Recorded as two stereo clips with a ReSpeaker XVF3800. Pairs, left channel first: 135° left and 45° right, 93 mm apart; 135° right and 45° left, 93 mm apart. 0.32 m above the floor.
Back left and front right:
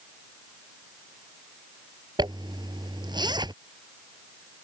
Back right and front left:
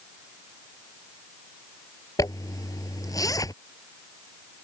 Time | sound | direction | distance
2.2 | a zipper | 85° right | ?